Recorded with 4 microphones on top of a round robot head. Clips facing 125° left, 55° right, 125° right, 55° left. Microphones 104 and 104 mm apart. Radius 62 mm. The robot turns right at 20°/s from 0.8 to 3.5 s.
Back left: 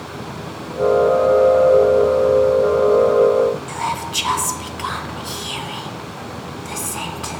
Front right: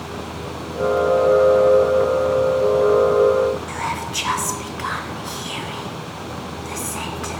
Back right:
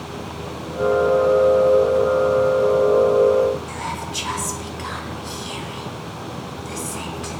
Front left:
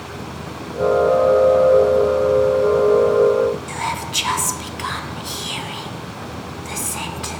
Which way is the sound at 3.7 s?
60° left.